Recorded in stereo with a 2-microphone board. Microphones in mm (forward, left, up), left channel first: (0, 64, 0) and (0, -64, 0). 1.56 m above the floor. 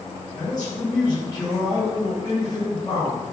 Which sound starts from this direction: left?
A man speaking, at 0.4 s.